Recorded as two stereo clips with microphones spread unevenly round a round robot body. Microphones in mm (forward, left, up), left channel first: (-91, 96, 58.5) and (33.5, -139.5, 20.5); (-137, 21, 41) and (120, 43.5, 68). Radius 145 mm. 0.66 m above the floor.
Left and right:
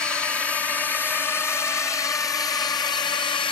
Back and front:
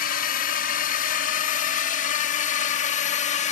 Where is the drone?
150° right; by 3.5 s 175° right.